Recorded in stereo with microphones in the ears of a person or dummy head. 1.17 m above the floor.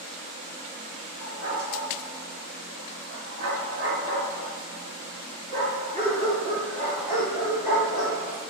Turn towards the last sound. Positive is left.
turn(degrees=-15)  # may be behind; listen again after turning